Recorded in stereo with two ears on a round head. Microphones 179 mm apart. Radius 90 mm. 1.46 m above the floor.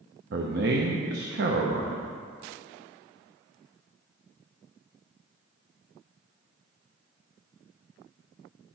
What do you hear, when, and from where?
0.3 s a man speaking: 55° right (ahead or behind), 1.0 m